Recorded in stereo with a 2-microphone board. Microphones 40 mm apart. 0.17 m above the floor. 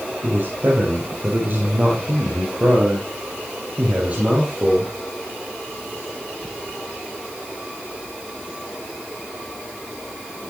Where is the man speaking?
50° right (ahead or behind), 5 m; by 4.9 s 30° right (ahead or behind), 6 m.